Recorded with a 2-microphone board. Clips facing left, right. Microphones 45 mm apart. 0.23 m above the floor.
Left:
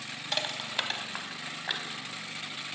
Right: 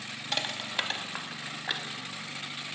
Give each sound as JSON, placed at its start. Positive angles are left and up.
{"t": 0.3, "sound": "crushing", "side_deg": 0, "distance_m": 0.5}